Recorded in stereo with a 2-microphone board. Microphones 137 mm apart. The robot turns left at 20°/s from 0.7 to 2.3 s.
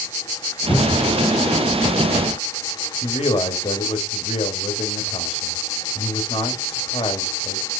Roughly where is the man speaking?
Left.